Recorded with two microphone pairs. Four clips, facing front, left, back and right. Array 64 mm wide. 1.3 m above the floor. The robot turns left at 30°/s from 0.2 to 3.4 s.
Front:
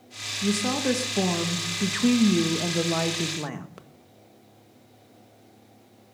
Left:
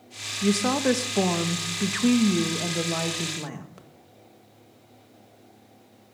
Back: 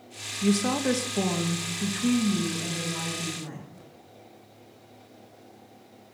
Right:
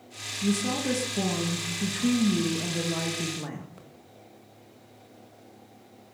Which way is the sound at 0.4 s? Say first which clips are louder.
Left 5 dB, back 1 dB; 105° left.